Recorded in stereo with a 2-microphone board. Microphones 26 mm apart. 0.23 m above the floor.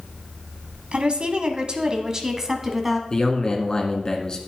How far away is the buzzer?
No buzzer in this recording.